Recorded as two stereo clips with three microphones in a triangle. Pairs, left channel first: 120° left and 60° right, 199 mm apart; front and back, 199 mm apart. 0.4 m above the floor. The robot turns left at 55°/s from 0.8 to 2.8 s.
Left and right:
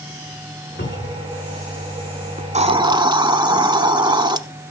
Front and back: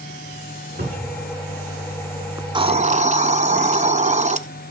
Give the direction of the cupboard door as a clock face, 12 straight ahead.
7 o'clock.